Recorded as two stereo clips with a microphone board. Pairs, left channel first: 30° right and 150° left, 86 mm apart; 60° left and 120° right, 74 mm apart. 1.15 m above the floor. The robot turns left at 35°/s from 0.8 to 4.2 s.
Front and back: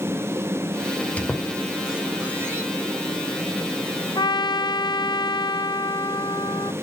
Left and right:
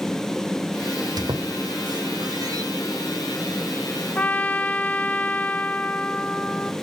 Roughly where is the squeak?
Right.